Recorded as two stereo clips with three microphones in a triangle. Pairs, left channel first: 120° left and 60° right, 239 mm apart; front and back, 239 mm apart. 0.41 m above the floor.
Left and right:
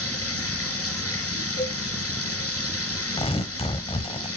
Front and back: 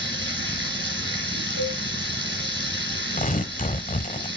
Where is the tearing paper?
55° left, 0.7 m.